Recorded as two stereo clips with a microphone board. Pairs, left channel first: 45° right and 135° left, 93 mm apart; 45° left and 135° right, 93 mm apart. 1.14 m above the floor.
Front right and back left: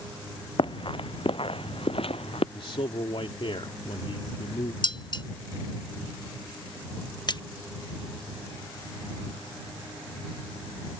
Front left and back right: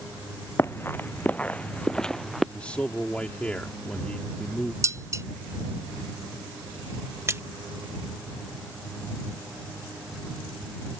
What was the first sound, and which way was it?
Running footsteps, 15° right.